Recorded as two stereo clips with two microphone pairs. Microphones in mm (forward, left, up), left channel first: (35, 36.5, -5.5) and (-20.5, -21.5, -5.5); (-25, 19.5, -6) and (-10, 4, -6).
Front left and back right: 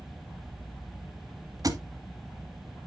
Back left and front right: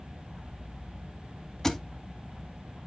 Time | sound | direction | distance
1.6 | a thud | 160° right | 1.2 m